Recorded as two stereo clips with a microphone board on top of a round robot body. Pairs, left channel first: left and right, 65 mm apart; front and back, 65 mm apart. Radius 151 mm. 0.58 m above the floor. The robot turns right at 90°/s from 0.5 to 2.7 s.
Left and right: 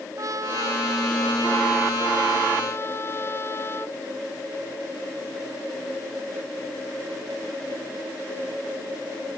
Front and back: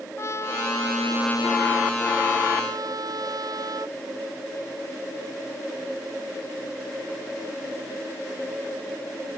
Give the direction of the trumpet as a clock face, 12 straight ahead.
2 o'clock.